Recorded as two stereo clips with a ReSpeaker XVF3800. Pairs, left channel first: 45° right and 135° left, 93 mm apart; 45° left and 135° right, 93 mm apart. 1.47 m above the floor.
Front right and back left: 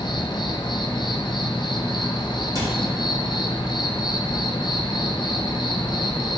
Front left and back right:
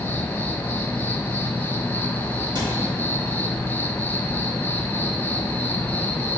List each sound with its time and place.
0.0 s an insect: 20° right, 0.8 m
2.5 s a cupboard door: 175° right, 2.5 m